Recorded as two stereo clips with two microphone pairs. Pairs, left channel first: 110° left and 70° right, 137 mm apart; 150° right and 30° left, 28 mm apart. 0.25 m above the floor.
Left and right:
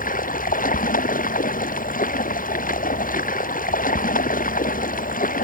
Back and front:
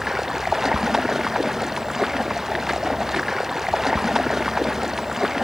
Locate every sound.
0.0 s running water: 110° left